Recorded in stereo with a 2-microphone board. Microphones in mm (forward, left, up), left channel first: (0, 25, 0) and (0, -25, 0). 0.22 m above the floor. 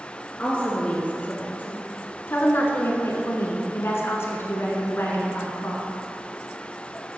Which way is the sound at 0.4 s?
25° left (ahead or behind).